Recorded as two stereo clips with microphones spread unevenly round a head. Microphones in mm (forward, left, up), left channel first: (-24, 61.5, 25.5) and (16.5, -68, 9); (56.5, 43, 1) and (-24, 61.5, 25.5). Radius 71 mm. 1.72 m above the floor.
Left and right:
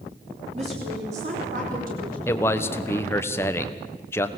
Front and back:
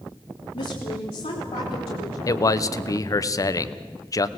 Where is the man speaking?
35° left, 1.2 m.